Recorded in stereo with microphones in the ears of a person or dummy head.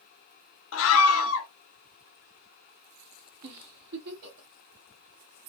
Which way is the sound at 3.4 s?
55° right (ahead or behind).